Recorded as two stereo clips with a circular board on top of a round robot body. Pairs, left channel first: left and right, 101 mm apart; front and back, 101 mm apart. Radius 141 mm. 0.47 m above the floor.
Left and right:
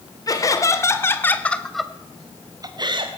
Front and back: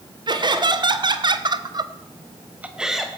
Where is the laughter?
140° left, 2 m; by 3.1 s 90° right, 1.4 m.